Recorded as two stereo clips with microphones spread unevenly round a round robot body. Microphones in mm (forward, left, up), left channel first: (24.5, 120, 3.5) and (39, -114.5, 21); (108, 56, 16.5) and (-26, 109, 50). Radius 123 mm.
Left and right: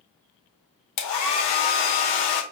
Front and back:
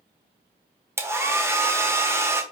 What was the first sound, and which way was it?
A hair dryer, 80° left.